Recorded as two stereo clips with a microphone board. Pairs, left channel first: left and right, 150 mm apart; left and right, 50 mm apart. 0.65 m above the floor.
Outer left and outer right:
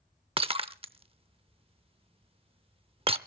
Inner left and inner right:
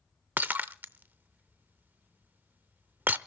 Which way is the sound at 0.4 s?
35° right (ahead or behind).